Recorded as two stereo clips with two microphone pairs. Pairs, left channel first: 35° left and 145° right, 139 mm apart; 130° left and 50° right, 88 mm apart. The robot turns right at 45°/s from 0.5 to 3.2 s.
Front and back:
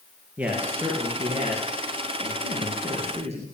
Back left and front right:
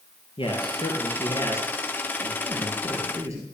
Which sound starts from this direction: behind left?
A man speaking, at 0.4 s.